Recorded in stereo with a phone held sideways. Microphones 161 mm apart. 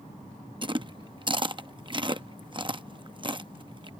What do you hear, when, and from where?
0.6 s chewing: 30° right (ahead or behind)